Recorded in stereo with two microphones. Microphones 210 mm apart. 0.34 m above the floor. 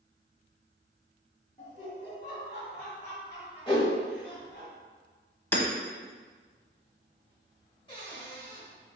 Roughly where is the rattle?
No rattle in this recording.